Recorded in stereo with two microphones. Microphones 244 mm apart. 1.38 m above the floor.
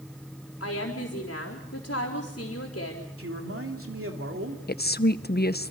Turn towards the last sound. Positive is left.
turn(degrees=40)  # may be behind; listen again after turning